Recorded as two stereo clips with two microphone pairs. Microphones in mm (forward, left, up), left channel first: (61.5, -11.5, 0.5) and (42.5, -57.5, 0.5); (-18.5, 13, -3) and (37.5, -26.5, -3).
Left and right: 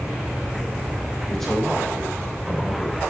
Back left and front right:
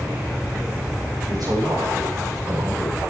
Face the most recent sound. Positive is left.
turn(degrees=-10)